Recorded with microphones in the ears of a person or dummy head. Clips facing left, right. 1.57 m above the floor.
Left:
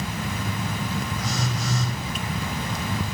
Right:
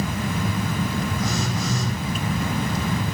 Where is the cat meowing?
I don't hear a cat meowing.